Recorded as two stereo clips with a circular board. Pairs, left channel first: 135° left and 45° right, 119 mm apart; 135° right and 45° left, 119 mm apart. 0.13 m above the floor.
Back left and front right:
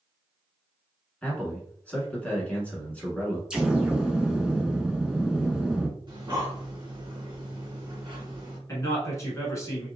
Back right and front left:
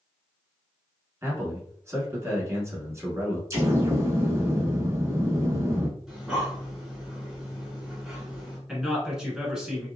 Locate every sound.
1.2 s a man speaking: 70° left, 1.1 m
3.5 s an explosion: 30° left, 0.8 m
6.1 s breathing: 40° right, 1.5 m
8.7 s a man speaking: 125° left, 1.1 m